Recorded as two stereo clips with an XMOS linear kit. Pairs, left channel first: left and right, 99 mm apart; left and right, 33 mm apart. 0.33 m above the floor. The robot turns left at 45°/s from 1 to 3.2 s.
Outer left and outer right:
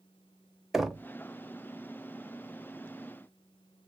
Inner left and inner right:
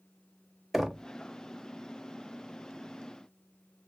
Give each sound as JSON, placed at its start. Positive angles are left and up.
{"t": 0.7, "sound": "knocking", "side_deg": 0, "distance_m": 0.6}